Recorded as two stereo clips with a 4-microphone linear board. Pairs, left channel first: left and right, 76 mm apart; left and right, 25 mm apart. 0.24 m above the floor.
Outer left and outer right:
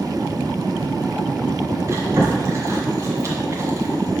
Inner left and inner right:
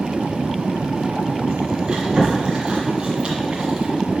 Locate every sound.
1.9 s chewing: 40° right (ahead or behind), 1.8 m